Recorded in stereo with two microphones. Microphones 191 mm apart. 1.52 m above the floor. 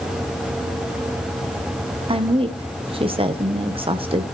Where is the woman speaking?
30° right (ahead or behind), 1.0 m.